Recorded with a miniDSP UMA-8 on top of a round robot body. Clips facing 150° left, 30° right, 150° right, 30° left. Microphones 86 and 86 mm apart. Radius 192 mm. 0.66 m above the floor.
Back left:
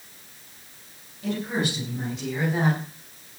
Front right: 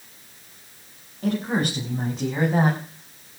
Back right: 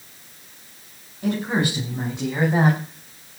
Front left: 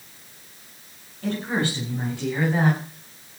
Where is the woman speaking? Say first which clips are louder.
Front right 3 dB, back right 3 dB; 75° right, 7 m; by 3.4 s 95° right, 4 m.